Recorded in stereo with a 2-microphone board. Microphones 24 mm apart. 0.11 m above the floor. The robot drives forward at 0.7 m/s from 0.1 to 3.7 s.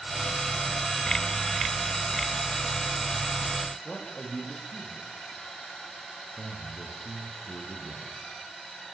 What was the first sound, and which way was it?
A man speaking, 20° left (ahead or behind).